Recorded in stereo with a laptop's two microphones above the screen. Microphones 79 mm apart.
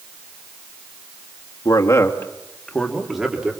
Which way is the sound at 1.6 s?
50° left (ahead or behind).